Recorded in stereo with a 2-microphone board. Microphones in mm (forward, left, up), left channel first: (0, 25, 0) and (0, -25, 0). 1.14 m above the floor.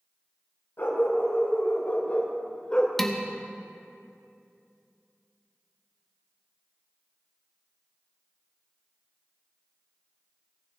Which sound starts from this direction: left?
A dog barking, at 0.8 s.